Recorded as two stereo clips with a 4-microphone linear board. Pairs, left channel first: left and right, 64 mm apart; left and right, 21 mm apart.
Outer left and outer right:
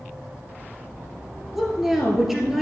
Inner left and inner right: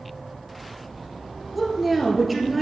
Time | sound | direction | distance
1.6 | a woman speaking | 5° right (ahead or behind) | 2 m